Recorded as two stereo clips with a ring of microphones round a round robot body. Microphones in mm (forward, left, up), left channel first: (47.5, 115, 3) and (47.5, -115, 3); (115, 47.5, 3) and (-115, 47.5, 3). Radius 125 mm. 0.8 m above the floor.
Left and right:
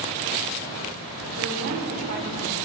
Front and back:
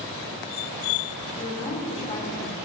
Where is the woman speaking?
70° right, 2.5 m; by 2.5 s 65° right, 1.8 m.